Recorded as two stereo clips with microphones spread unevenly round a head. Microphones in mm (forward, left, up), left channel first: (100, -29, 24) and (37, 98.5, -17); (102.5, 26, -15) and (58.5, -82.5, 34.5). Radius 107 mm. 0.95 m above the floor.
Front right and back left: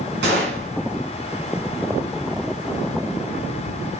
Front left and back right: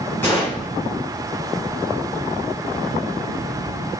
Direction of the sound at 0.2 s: 155° left.